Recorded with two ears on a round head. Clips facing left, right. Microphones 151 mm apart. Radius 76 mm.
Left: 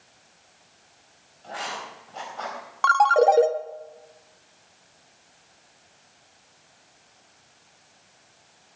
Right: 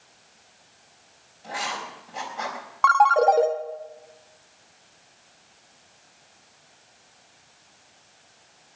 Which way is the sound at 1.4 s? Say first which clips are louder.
Right 2 dB; 15° right (ahead or behind).